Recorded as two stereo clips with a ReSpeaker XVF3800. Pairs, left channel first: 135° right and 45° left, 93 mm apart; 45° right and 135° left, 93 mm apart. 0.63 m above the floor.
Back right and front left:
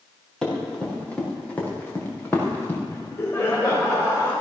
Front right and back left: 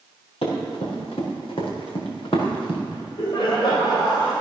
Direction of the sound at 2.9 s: 75° right.